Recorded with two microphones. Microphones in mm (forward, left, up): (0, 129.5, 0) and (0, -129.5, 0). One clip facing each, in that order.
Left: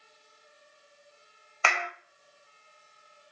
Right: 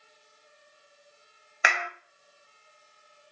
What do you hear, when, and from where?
1.6 s a clap: 15° right (ahead or behind), 0.7 m